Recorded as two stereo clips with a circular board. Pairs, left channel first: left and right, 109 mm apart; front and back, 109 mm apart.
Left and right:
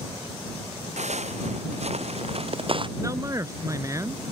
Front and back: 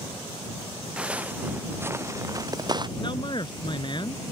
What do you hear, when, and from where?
1.0 s footsteps: 100° right; by 2.9 s 135° right
3.0 s a man speaking: 35° right